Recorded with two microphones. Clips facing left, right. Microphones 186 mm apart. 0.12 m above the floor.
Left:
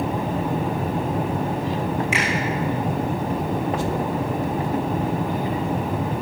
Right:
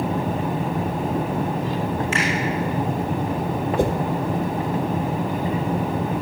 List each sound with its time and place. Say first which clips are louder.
2.1 s a finger snap: even; 15° left (ahead or behind), 7.5 m
3.8 s a whoosh: right 4 dB; 60° right (ahead or behind), 0.8 m